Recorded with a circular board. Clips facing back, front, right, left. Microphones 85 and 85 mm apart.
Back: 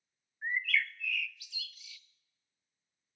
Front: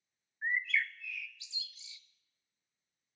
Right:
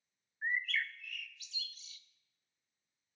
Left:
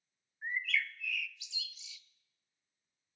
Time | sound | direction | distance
0.4 | a bird | 60° right | 0.7 m